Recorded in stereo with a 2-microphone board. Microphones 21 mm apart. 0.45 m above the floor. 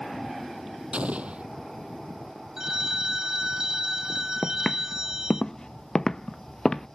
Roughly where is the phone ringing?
Right.